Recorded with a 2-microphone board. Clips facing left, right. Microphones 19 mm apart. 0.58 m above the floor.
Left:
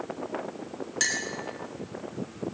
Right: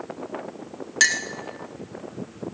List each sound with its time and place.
1.0 s a clink: 40° right (ahead or behind), 0.7 m